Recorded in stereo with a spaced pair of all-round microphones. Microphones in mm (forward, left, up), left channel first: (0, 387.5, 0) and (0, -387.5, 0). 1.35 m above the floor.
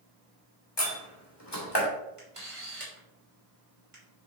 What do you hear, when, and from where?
0.8 s a door slam: 30° left (ahead or behind), 1.9 m
2.2 s a camera shutter: 40° right (ahead or behind), 2 m